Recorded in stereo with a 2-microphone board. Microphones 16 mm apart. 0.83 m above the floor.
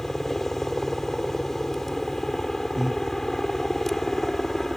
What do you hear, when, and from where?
0.0 s a helicopter: 20° left (ahead or behind)
2.8 s breathing: 15° right (ahead or behind)